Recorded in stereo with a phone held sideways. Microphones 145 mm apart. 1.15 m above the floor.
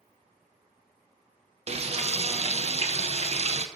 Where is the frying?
45° right (ahead or behind), 0.6 m.